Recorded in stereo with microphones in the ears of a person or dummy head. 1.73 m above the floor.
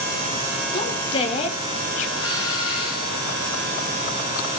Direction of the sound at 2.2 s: 25° left (ahead or behind).